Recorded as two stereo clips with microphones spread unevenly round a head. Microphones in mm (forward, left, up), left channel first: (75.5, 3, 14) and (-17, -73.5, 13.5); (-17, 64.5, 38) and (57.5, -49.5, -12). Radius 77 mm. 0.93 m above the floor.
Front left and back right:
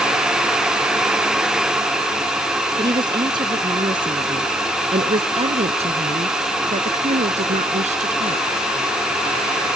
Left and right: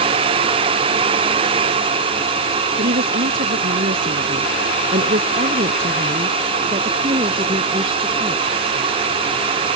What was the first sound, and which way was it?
A woman speaking, 85° right.